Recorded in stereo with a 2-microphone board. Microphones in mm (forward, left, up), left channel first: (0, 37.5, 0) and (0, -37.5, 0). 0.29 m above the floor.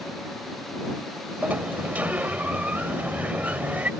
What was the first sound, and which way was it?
A sliding door, 20° right (ahead or behind).